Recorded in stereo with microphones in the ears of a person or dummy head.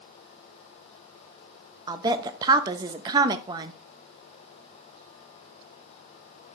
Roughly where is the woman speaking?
Centre.